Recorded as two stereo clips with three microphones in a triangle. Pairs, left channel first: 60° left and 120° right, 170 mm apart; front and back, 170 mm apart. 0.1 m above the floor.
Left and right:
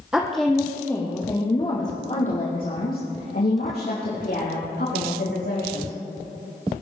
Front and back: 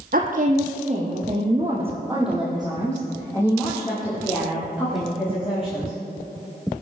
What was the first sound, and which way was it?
A woman speaking, 160° left.